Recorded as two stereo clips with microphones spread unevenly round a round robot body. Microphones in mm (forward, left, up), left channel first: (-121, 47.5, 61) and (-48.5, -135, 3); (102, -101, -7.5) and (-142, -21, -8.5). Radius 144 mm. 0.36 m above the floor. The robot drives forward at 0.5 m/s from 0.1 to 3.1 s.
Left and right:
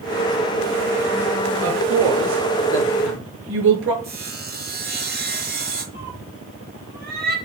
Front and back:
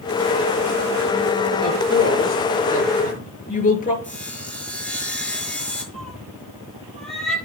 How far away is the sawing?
About 6.5 m.